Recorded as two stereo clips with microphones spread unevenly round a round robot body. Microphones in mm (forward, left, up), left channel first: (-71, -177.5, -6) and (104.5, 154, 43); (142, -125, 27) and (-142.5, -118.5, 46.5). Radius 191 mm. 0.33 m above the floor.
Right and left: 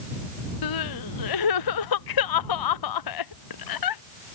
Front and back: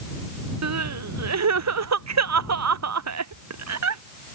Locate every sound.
0.6 s crying: 155° right